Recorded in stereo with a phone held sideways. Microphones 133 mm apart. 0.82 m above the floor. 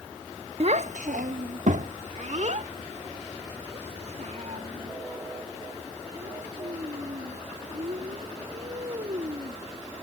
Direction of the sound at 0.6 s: 50° right (ahead or behind).